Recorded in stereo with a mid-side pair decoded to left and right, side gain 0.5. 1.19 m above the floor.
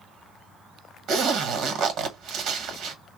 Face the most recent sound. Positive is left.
turn(degrees=-70)